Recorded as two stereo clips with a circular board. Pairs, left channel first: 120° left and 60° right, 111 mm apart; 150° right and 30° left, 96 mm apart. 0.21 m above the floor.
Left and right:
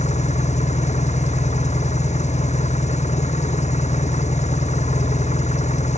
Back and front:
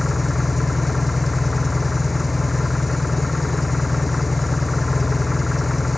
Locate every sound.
0.0 s an engine running: 120° left